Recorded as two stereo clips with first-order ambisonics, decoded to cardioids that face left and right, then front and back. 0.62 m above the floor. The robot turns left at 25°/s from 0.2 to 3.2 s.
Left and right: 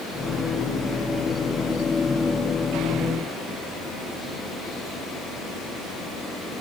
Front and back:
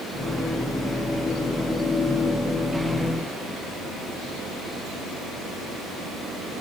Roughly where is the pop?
I don't hear a pop.